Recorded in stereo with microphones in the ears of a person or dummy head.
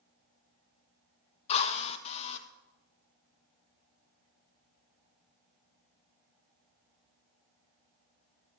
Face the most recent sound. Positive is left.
turn(degrees=40)  # may be behind; listen again after turning